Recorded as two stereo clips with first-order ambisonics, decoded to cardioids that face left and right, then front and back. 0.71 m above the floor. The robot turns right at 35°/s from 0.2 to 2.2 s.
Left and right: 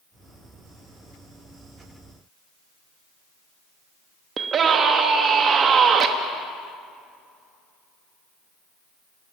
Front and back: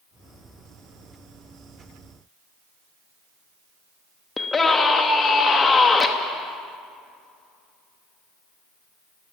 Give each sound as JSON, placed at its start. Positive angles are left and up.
{"t": 4.4, "sound": "a scream", "azimuth_deg": -65, "distance_m": 1.0}